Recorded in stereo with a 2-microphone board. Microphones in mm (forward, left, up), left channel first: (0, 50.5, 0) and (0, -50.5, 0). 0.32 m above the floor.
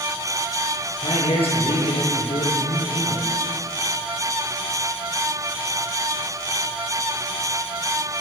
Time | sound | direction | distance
1.0 | a man speaking | 80° left | 7.5 m